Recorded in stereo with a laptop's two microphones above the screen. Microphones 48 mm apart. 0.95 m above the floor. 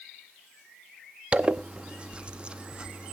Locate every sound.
1.3 s a zipper: 25° right (ahead or behind), 0.7 m